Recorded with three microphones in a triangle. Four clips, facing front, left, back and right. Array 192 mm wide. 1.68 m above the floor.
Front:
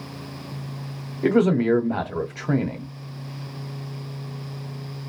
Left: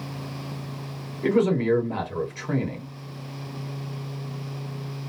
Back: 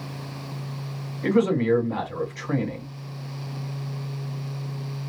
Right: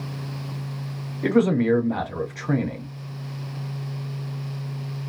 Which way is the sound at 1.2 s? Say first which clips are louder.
Right 2 dB, front 2 dB; 25° right.